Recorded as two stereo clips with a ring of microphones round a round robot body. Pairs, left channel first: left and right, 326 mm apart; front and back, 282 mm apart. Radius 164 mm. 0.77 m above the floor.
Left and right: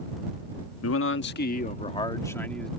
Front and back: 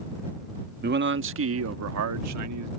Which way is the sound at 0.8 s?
130° left.